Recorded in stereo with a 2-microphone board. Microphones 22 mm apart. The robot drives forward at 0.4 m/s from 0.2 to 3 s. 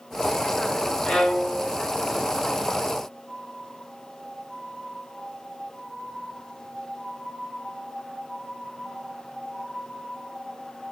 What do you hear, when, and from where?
1.1 s a violin: 70° left (ahead or behind), 4 m; by 1.8 s 65° left (ahead or behind), 4 m